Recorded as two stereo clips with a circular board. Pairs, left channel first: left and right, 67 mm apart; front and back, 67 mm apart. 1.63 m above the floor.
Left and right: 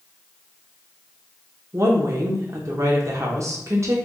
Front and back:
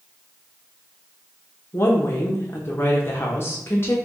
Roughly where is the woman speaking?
Ahead right.